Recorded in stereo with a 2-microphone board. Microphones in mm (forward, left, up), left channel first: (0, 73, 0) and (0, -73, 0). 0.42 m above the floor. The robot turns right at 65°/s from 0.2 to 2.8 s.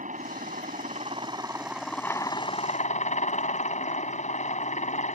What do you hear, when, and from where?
0.0 s a helicopter: 110° right; by 5.2 s 60° left